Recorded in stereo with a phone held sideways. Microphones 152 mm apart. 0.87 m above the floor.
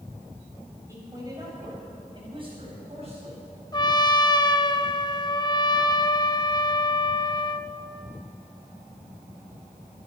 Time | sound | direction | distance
0.9 | a man speaking | 20° right (ahead or behind) | 5 m
3.7 | a trumpet | 30° left (ahead or behind) | 0.5 m